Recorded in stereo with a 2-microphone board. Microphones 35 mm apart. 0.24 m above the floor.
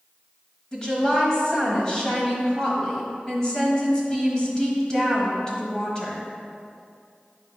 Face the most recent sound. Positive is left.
turn(degrees=25)  # may be behind; listen again after turning